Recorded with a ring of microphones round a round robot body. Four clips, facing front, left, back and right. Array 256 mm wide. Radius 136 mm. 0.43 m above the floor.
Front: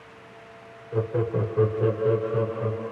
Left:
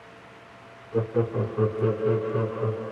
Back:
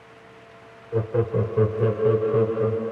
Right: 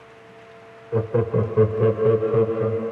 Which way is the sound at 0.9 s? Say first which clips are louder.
Right 4 dB, back 2 dB; 95° right.